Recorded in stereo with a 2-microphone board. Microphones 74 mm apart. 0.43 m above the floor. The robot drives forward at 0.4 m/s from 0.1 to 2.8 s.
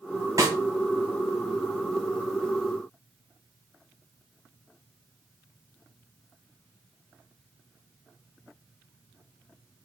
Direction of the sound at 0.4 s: 50° right (ahead or behind).